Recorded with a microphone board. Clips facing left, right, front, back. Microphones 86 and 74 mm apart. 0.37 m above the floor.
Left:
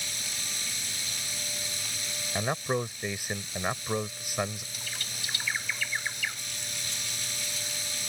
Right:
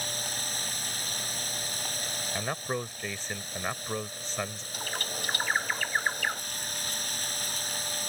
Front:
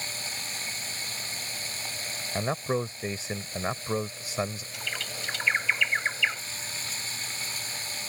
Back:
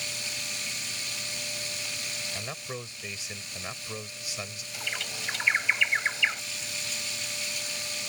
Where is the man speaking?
20° left.